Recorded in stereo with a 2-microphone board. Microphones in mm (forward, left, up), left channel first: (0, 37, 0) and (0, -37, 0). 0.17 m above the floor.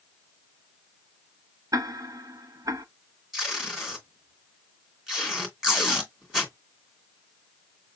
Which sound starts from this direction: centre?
Tape being pulled, at 3.3 s.